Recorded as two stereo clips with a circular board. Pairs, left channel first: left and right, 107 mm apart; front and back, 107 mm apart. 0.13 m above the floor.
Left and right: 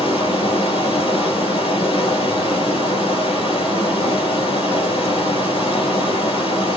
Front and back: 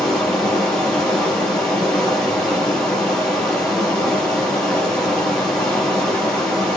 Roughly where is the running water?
Left.